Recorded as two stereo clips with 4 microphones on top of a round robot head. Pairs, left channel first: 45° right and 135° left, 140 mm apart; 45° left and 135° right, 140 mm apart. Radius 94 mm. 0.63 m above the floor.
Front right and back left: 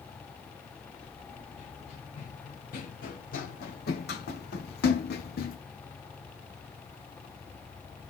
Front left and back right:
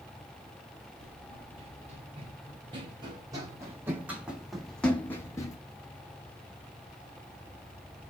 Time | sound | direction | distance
1.0 | running footsteps | 95° right | 2.5 m